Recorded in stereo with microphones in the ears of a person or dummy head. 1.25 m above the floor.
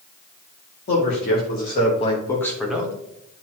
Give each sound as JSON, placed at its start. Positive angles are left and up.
{"t": 0.9, "sound": "a man speaking", "side_deg": 60, "distance_m": 2.0}